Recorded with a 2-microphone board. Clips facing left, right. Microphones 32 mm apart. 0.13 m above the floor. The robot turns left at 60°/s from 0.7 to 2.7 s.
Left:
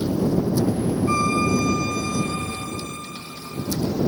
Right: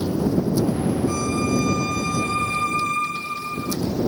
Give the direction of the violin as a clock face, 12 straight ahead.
11 o'clock.